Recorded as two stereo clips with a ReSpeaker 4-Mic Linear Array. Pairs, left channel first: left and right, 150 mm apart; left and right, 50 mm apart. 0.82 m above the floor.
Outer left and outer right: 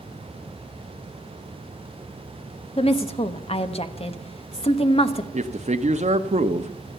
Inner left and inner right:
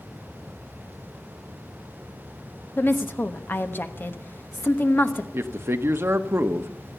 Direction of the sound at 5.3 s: 50° right (ahead or behind).